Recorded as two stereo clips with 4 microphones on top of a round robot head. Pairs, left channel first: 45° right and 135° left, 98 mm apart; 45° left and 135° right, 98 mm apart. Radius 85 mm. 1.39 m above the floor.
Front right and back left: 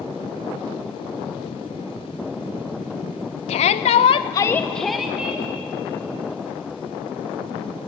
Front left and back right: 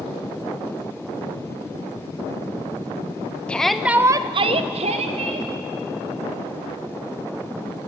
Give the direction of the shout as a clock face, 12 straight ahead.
1 o'clock.